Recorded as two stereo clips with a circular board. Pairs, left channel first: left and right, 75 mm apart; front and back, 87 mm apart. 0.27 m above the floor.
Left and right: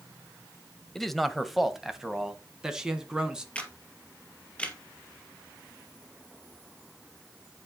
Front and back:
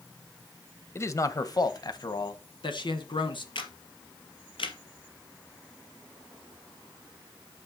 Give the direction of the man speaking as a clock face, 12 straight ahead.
12 o'clock.